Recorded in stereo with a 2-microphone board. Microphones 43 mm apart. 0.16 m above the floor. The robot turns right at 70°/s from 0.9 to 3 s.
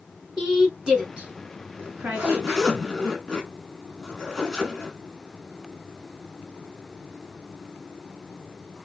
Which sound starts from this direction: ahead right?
A zipper, at 1.8 s.